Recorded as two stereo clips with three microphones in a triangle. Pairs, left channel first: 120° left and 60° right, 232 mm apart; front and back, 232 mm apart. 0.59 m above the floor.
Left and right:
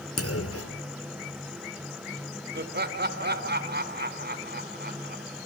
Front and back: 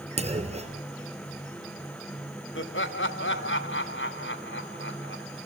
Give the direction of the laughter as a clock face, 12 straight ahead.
1 o'clock.